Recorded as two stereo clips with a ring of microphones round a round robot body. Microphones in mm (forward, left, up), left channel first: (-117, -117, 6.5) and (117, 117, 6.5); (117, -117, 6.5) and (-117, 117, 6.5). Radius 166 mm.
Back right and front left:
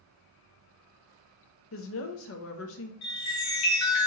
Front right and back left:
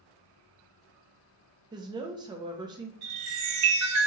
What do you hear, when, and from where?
1.7 s a woman speaking: 155° right, 0.6 m
3.0 s a chime: straight behind, 2 m